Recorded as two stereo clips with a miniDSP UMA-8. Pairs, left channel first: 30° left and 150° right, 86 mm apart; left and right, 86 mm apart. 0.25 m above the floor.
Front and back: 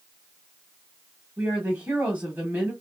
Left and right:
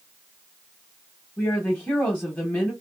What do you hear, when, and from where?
1.4 s a woman speaking: 145° left, 1.2 m